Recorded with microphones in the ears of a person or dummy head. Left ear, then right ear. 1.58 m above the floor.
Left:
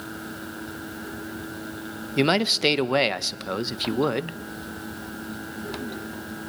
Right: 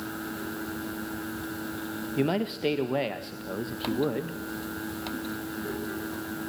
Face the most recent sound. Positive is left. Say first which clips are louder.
# left 8 dB
turn(degrees=45)  # may be behind; listen again after turning